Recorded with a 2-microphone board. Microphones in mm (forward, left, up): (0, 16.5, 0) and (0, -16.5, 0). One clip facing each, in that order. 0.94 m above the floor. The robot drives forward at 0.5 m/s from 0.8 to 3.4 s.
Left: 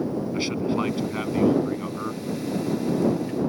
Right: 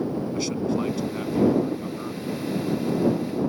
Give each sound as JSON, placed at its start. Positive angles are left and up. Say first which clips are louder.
{"t": 0.3, "sound": "a man speaking", "louder": "left 1 dB", "side_deg": 30}